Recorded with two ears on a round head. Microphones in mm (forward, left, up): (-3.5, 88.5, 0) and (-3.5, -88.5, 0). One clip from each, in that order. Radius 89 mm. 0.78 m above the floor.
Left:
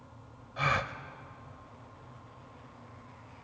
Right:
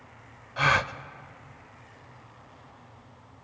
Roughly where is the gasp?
Right.